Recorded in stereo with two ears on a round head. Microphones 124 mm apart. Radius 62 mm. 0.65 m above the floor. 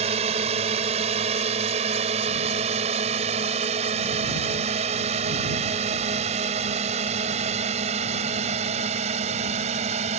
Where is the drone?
50° right (ahead or behind).